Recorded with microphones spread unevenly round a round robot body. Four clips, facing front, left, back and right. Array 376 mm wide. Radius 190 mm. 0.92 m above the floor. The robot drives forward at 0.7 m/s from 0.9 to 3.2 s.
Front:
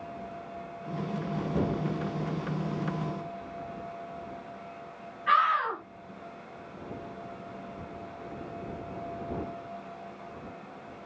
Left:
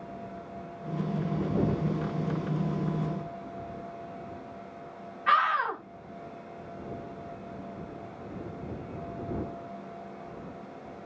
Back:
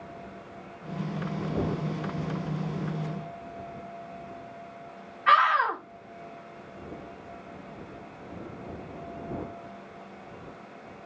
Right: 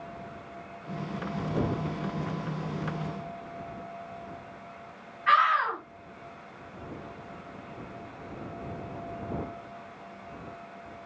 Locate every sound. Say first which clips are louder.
5.3 s a scream: right 2 dB, back 4 dB; 155° left, 4.5 m